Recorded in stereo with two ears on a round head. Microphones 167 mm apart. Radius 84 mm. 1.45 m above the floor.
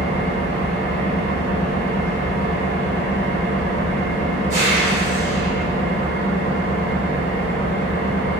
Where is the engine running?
50° right (ahead or behind), 1.2 m.